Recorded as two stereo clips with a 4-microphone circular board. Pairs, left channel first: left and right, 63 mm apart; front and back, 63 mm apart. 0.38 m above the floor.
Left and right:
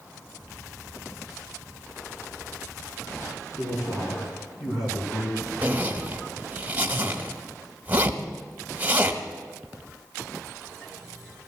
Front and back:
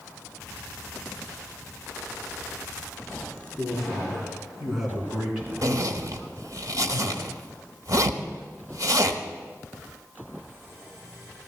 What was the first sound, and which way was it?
A man speaking, 90° left.